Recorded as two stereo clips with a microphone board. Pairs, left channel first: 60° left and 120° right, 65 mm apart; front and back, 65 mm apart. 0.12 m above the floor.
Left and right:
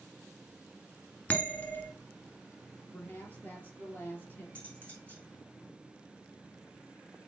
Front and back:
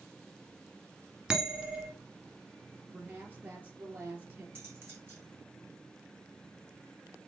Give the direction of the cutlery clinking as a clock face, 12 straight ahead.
8 o'clock.